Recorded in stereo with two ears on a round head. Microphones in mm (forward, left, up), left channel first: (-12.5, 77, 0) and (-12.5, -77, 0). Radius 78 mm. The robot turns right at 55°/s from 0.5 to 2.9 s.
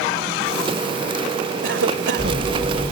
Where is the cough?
95° right; by 2.5 s 45° right.